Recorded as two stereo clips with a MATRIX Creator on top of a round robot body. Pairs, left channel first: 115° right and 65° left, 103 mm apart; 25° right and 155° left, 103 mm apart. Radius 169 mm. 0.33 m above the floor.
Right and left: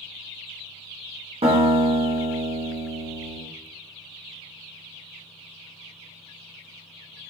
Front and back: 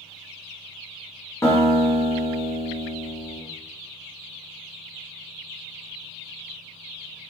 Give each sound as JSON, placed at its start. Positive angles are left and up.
{"t": 1.4, "sound": "a guitar", "azimuth_deg": 40, "distance_m": 1.2}